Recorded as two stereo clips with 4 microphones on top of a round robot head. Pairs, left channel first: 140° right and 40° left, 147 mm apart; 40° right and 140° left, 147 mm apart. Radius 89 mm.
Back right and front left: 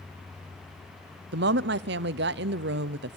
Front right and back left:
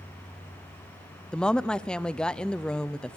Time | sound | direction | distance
1.3 | a woman speaking | 45° left | 0.8 m